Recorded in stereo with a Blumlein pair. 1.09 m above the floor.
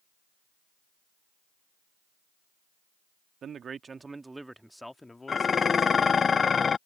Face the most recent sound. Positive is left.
turn(degrees=20)